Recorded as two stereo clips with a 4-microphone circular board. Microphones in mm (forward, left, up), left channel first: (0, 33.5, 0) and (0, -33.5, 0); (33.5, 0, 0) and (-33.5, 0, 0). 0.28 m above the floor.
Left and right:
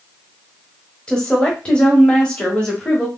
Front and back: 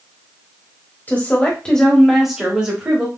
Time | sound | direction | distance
1.1 | a woman speaking | 30° left | 1.2 m